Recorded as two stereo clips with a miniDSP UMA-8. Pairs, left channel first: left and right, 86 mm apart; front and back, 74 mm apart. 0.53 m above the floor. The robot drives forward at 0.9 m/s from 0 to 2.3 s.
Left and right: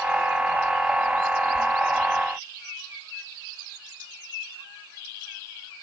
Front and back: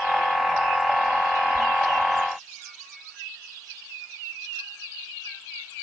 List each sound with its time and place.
Only background noise.